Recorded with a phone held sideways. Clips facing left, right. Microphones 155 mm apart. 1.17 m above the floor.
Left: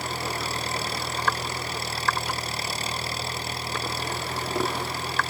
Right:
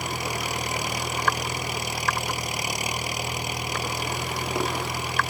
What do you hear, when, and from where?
0.0 s an engine running: 15° right (ahead or behind)